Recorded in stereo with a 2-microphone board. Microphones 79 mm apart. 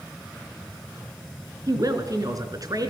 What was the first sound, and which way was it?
A woman speaking, 45° right (ahead or behind).